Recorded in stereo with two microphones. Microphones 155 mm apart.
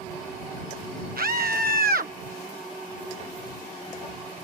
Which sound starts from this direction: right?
A scream, at 1.2 s.